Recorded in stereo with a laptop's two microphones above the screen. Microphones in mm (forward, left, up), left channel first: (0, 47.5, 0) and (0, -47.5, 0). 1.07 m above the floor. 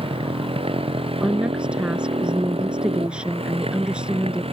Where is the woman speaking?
10° right (ahead or behind).